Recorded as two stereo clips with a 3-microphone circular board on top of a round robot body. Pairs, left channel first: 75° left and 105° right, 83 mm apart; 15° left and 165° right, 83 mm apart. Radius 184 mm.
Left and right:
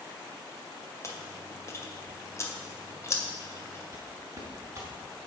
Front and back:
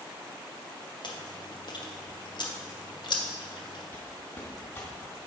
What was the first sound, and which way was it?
Chewing, 25° left.